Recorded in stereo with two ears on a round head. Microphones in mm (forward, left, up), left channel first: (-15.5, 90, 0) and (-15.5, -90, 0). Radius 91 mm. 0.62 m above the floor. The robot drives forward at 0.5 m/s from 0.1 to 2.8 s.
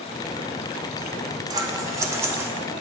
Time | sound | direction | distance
1.5 | scissors | 20° right (ahead or behind) | 0.7 m